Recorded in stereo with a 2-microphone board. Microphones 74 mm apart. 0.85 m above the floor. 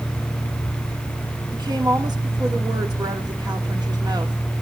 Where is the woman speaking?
70° right (ahead or behind), 2.5 m.